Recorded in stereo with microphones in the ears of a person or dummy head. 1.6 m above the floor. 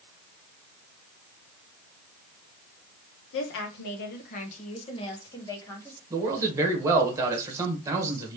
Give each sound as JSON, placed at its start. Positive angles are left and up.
{"t": 3.3, "sound": "a woman speaking", "side_deg": 75, "distance_m": 1.3}
{"t": 6.1, "sound": "a man speaking", "side_deg": -15, "distance_m": 1.4}